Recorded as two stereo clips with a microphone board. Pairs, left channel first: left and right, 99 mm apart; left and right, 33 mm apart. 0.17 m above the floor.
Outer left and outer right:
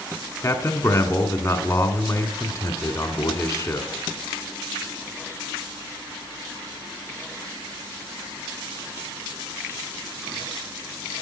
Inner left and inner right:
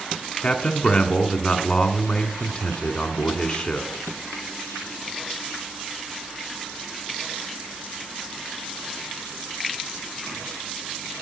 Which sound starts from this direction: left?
A man speaking, at 0.4 s.